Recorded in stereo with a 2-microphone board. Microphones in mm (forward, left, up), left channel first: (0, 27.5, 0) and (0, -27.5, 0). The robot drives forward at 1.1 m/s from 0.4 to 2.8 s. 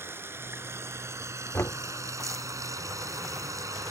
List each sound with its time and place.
0.0 s running water: 45° right (ahead or behind); by 3.9 s 90° right
1.5 s knocking: 55° left (ahead or behind); by 1.8 s 45° left (ahead or behind)